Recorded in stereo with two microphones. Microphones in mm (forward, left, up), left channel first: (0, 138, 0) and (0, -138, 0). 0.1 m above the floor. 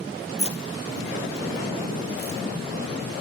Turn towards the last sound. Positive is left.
turn(degrees=-60)  # may be behind; listen again after turning